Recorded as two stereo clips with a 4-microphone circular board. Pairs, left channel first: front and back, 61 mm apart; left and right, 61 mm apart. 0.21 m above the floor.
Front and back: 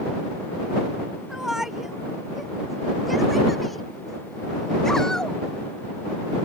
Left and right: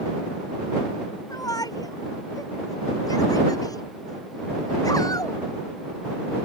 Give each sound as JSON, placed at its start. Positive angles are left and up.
{"t": 1.3, "sound": "a shout", "azimuth_deg": 95}